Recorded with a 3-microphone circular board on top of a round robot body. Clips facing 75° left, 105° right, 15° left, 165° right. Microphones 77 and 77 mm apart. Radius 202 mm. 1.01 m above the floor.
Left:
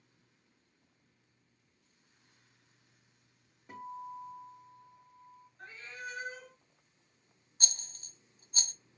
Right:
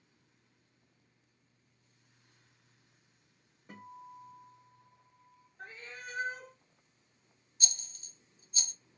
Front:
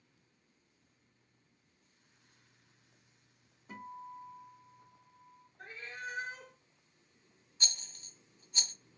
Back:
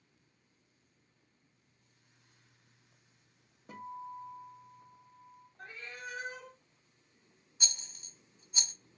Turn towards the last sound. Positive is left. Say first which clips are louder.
# left 1 dB, front 1 dB
turn(degrees=115)